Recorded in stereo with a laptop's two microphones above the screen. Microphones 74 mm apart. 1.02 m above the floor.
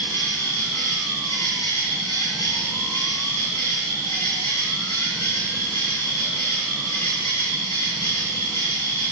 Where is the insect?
75° left (ahead or behind), 2.5 m.